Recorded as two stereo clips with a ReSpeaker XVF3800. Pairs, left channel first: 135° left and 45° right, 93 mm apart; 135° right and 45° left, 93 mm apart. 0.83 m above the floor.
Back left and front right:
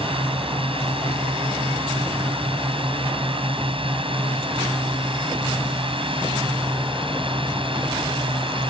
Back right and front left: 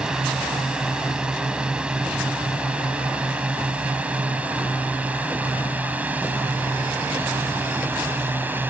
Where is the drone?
35° right; by 8.7 s 25° right.